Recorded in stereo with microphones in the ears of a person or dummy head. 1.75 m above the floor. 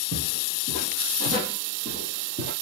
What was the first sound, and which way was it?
Footsteps, 60° right (ahead or behind).